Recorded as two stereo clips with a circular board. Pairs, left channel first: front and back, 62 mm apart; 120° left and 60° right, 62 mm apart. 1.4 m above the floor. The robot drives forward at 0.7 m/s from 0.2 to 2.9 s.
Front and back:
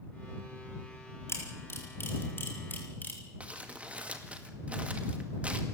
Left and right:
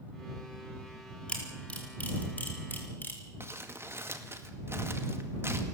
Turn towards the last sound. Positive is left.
turn(degrees=-110)